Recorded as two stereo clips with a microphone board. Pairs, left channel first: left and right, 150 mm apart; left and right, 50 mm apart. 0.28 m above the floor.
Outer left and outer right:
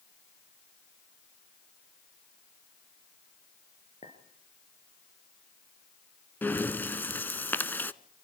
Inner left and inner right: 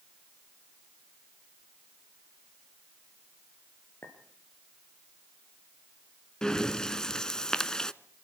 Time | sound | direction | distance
4.0 | a clink | 50° left (ahead or behind) | 4 m
6.4 | breathing | 15° left (ahead or behind) | 0.7 m